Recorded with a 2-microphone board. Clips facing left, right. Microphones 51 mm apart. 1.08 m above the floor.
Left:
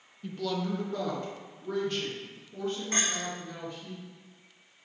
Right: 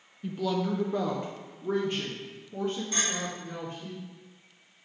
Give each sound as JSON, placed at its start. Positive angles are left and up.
{"t": 0.2, "sound": "a woman speaking", "side_deg": -5, "distance_m": 0.6}
{"t": 2.9, "sound": "a clink", "side_deg": 45, "distance_m": 3.0}